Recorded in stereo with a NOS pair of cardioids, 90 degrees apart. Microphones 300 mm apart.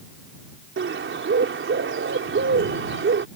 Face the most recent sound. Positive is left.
turn(degrees=-40)